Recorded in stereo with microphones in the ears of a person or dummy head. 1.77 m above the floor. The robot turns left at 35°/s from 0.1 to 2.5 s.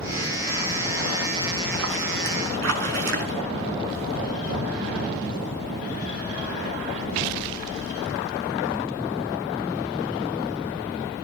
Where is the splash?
75° right, 5 m; by 3.4 s 110° right, 5 m.